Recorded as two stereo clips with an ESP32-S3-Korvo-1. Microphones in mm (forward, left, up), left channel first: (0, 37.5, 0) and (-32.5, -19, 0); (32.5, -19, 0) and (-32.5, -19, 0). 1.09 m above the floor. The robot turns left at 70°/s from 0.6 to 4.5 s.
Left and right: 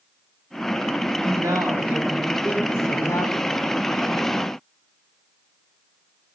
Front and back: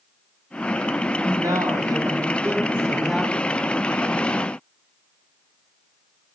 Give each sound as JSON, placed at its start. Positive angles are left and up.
{"t": 1.2, "sound": "a woman speaking", "azimuth_deg": -140, "distance_m": 3.0}